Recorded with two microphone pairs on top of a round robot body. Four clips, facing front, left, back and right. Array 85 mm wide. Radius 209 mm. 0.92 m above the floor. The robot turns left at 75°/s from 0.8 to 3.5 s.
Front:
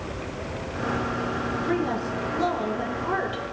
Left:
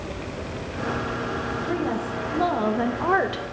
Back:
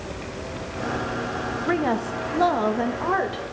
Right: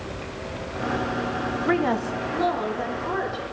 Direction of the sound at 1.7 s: 130° right.